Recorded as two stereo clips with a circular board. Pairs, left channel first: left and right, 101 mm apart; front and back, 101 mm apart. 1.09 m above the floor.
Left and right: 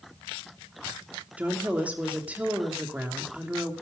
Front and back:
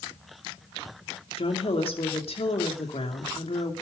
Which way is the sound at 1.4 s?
15° right.